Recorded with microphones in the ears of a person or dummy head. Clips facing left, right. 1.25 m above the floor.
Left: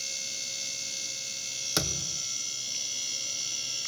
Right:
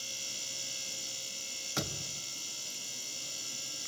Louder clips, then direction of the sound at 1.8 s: Left 4 dB; 65° left (ahead or behind).